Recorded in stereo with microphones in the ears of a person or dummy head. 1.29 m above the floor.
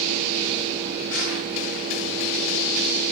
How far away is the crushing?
About 7 m.